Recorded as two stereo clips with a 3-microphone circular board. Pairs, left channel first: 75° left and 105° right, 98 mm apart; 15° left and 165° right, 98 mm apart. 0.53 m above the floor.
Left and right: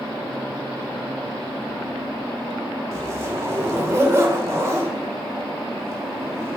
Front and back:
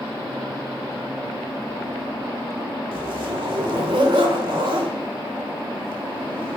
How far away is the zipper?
About 1.6 m.